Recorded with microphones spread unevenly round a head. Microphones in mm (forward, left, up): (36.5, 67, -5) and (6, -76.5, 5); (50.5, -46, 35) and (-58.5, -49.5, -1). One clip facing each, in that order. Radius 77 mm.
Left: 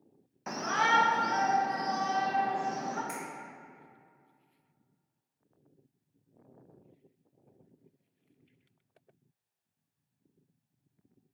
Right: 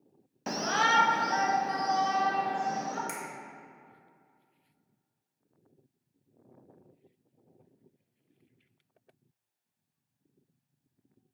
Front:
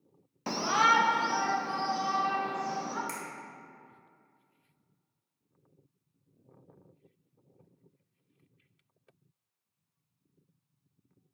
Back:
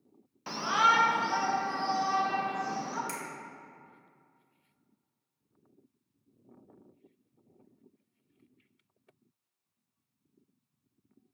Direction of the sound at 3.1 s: 100° right.